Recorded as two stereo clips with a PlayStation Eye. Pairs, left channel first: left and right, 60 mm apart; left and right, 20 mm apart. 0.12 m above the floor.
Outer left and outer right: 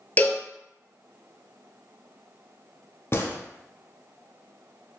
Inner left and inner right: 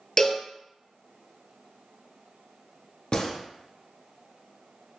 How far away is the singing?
I don't hear singing.